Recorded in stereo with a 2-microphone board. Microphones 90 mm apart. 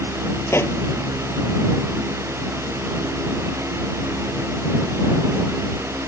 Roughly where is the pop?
Left.